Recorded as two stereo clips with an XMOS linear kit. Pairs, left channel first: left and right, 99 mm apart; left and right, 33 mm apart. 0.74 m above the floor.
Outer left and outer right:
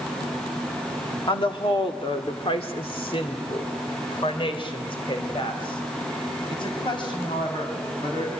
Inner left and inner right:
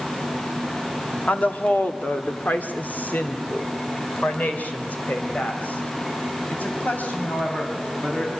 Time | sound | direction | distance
1.3 | a woman speaking | 60° left (ahead or behind) | 1.8 m